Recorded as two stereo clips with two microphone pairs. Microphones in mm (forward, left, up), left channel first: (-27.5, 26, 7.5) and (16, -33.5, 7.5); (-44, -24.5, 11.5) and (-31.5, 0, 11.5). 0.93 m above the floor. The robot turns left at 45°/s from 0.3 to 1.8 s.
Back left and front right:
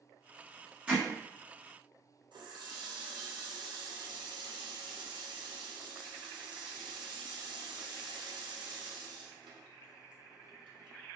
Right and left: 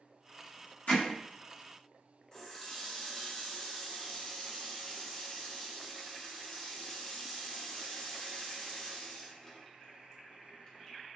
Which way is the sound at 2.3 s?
45° right.